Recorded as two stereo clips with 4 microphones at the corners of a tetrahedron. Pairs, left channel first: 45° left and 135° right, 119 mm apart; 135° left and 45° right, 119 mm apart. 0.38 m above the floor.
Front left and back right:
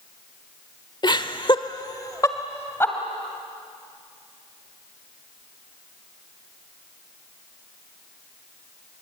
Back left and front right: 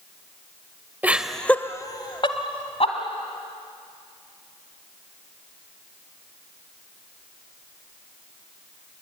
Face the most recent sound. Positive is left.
turn(degrees=115)